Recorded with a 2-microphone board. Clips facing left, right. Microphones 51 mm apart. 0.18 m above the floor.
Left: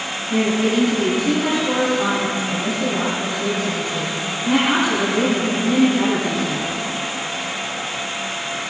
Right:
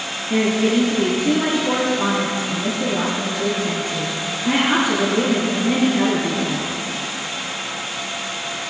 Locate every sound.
0.3 s a woman speaking: 40° right (ahead or behind), 4 m